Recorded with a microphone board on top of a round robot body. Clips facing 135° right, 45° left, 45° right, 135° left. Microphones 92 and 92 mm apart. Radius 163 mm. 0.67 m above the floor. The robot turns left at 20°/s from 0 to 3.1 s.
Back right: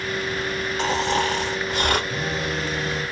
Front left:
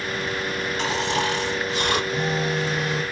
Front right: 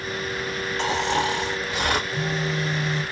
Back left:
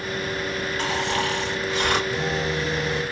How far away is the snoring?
About 1.7 m.